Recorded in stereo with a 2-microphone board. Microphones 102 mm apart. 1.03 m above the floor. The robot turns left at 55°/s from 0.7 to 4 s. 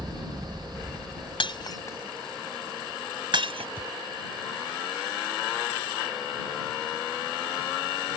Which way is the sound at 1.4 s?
55° left (ahead or behind).